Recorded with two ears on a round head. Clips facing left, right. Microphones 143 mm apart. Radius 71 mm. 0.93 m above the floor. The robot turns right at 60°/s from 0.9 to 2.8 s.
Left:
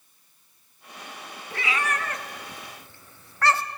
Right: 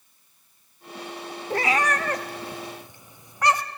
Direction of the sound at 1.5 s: 35° right (ahead or behind).